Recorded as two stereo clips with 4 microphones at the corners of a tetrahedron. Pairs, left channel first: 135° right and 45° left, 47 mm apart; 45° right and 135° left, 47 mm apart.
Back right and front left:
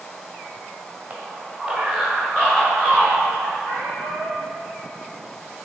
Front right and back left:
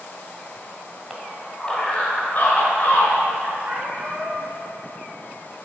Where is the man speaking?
80° left, 1.2 m; by 3.5 s 80° right, 2.5 m.